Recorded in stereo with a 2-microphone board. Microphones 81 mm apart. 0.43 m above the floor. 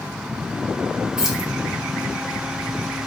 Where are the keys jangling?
10° right (ahead or behind), 0.6 m.